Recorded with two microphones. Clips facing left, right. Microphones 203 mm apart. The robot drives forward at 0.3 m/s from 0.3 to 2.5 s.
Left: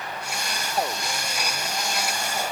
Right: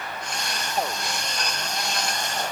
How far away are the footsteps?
I don't hear footsteps.